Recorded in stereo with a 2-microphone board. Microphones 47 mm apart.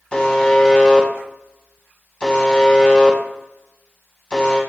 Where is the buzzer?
20° left (ahead or behind), 0.5 m.